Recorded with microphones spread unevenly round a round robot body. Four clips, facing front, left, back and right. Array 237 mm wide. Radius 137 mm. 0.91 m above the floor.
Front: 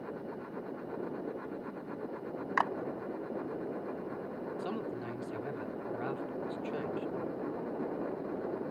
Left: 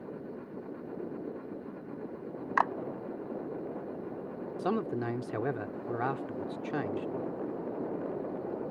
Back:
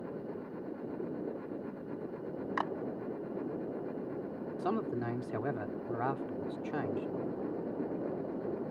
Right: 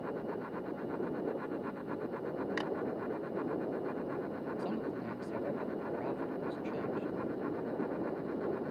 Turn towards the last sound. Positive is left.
turn(degrees=105)